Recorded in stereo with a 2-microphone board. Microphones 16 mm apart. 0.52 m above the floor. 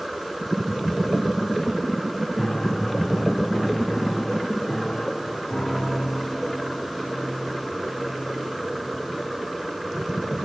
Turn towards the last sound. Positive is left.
turn(degrees=65)  # may be behind; listen again after turning